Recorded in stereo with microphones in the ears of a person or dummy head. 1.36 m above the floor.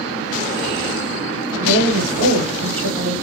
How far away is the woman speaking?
About 1.3 m.